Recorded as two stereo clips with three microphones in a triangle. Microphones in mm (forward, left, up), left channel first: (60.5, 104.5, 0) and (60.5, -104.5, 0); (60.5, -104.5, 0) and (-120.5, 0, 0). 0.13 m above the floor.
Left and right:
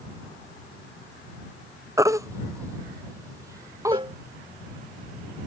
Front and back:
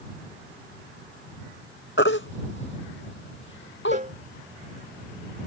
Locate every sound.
2.0 s a baby crying: 15° right
3.9 s a cowbell: 155° right